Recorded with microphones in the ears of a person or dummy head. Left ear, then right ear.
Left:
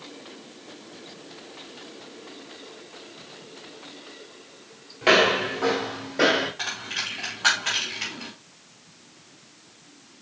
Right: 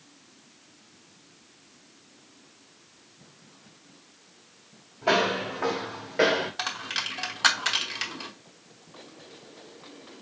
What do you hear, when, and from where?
5.0 s footsteps: 20° left (ahead or behind), 1.1 m; by 6.5 s 20° right (ahead or behind), 1.2 m
6.6 s a dropped coin: 50° right (ahead or behind), 1.0 m